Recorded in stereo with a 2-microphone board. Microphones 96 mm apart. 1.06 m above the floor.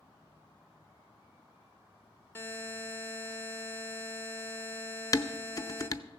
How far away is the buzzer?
About 1.1 m.